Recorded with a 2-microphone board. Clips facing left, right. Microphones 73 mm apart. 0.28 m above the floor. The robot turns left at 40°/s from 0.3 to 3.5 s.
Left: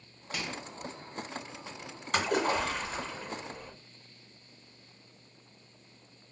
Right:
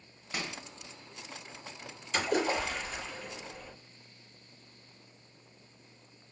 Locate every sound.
0.3 s a microwave: 25° right (ahead or behind), 0.9 m; by 0.6 s 30° right (ahead or behind), 0.9 m
2.1 s a splash: 80° left, 2.5 m; by 3.7 s 25° left, 2.5 m